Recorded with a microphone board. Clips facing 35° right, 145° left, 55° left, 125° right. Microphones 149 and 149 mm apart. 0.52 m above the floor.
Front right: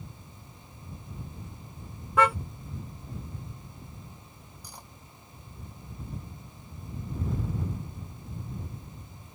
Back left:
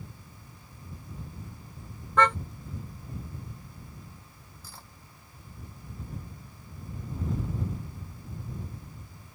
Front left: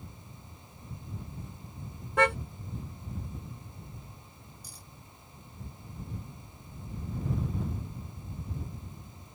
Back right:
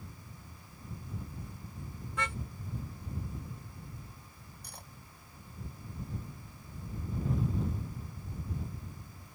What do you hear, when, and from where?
2.2 s a car horn: 45° left
4.6 s cutlery clinking: 105° right